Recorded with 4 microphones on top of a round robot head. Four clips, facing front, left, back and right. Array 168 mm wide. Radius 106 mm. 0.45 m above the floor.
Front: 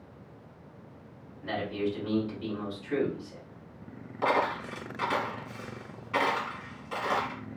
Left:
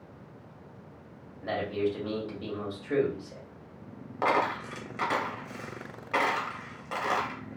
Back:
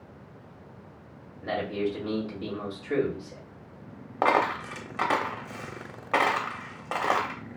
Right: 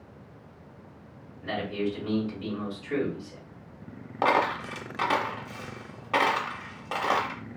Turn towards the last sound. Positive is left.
turn(degrees=-160)